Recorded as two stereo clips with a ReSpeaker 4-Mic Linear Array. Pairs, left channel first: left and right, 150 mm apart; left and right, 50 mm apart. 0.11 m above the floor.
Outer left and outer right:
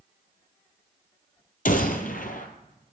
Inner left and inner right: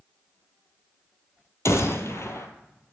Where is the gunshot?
65° left (ahead or behind), 1.3 m.